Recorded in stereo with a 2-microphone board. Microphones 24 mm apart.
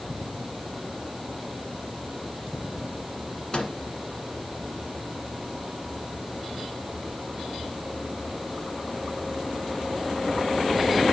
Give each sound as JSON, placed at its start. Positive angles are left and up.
{"t": 3.5, "sound": "a microwave", "side_deg": 35, "distance_m": 1.8}